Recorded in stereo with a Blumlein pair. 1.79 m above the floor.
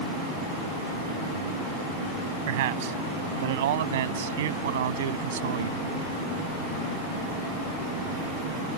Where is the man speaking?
55° right; by 5.8 s 60° right.